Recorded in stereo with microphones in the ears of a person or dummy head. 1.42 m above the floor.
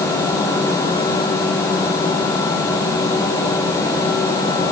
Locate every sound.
Only background noise.